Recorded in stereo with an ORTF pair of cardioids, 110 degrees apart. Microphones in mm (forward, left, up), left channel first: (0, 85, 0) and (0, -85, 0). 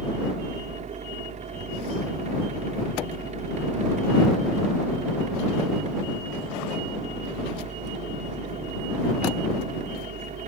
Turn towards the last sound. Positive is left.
turn(degrees=-45)